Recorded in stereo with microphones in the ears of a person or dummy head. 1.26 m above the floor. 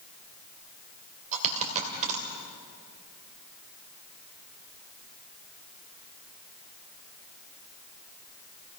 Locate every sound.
1.3 s a dropped coin: 40° right (ahead or behind), 3 m